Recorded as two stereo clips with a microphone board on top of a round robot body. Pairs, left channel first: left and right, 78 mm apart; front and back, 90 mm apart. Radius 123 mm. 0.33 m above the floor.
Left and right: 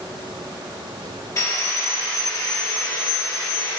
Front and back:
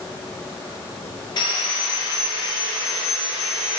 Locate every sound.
1.4 s sawing: 45° left, 2.0 m